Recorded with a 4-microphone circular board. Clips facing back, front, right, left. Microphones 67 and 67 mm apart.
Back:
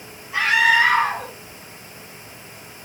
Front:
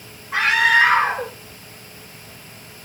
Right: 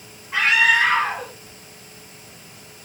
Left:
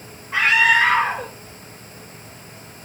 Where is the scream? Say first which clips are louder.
Front 1 dB, left 1 dB; straight ahead, 4 m.